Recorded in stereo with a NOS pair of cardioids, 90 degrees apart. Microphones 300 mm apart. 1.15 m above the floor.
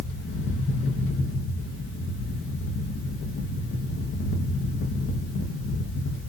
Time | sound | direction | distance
0.0 | a fan | 45° left | 0.8 m